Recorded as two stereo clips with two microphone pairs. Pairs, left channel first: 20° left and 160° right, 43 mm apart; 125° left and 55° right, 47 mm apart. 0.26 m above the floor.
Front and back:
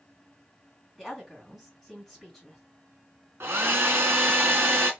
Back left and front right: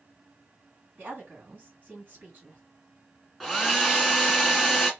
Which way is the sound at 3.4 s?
140° right.